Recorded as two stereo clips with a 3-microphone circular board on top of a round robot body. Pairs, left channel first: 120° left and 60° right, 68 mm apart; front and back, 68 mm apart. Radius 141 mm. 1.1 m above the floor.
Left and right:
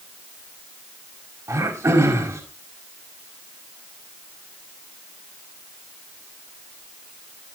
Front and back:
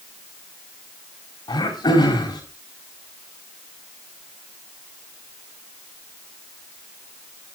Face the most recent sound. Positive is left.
turn(degrees=-15)